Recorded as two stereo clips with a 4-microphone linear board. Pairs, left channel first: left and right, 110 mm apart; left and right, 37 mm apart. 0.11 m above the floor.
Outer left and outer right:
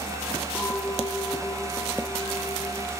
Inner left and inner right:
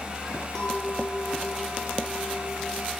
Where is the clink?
20° left (ahead or behind), 2.5 m.